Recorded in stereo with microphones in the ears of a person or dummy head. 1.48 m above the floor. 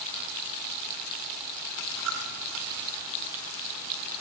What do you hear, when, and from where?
1.9 s a dropped coin: 65° right (ahead or behind), 4 m